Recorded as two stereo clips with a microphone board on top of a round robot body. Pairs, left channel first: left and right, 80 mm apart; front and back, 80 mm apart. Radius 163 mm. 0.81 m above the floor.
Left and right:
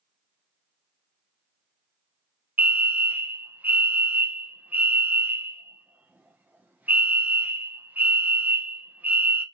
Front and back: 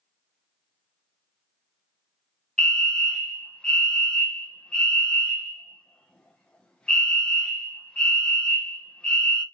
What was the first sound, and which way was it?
A fire alarm, 60° right.